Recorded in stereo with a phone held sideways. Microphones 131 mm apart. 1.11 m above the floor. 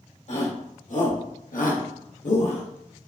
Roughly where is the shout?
Left.